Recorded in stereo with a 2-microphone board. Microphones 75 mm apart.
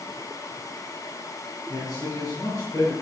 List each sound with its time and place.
1.7 s a man speaking: 50° left (ahead or behind), 4.5 m